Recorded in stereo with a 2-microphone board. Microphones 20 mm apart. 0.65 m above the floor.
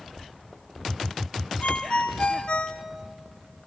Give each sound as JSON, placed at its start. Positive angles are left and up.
{"t": 1.6, "sound": "a ringtone", "side_deg": 70, "distance_m": 1.0}